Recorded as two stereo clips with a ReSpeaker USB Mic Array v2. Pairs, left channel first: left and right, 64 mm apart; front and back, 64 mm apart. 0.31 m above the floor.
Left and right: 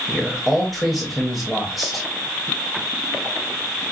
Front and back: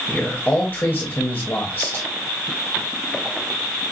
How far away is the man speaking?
About 1.0 m.